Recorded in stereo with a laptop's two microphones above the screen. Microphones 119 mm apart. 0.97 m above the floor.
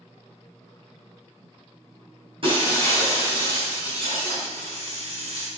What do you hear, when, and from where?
2.4 s breaking glass: 45° right (ahead or behind), 4.5 m
4.5 s a hiss: 60° right (ahead or behind), 3.5 m